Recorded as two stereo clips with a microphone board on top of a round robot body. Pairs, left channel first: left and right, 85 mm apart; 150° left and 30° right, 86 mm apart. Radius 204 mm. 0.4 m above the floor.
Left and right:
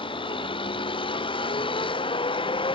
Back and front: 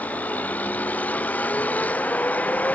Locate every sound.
0.0 s a vehicle: 80° left